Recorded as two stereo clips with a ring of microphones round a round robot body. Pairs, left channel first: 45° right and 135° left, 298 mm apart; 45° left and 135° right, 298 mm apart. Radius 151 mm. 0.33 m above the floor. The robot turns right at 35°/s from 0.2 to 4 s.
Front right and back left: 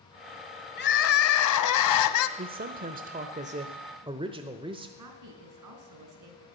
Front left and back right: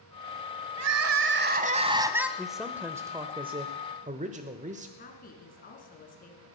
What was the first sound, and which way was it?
Crying, 100° right.